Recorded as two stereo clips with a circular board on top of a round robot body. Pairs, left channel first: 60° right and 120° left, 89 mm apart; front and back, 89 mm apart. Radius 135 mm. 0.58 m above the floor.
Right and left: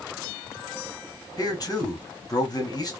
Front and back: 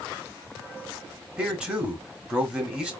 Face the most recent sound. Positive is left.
turn(degrees=-105)